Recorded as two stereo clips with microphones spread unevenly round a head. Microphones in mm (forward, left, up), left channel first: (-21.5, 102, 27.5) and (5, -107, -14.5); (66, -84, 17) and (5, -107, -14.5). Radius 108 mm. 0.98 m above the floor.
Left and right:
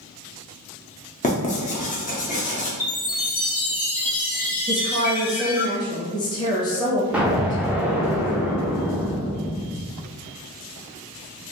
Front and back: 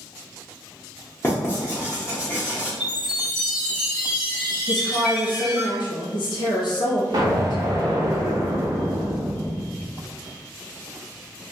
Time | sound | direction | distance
1.2 | writing | 55° left | 0.7 m
2.8 | a chime | 45° left | 1.0 m
4.7 | a woman speaking | 20° left | 0.9 m
7.1 | an explosion | 175° left | 0.6 m